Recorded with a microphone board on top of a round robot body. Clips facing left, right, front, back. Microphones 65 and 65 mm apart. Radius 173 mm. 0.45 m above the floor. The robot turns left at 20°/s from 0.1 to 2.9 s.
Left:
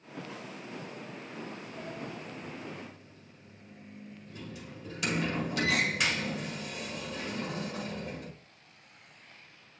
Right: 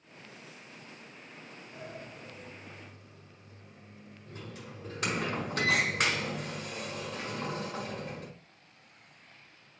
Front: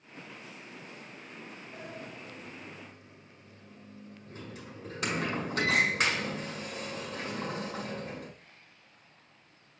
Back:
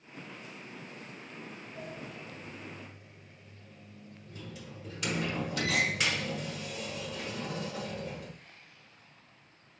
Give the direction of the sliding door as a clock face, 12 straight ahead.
1 o'clock.